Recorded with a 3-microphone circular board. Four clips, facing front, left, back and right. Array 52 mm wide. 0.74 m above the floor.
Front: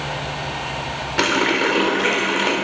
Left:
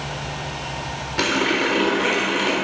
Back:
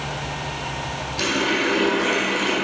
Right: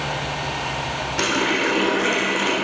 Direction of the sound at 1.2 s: 10° left.